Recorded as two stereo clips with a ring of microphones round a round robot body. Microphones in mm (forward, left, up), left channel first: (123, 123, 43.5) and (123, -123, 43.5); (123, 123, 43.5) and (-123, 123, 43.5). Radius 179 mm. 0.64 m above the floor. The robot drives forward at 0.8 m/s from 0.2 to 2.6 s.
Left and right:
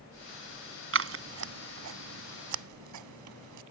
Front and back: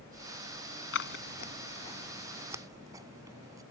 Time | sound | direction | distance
0.9 | scissors | 55° right | ?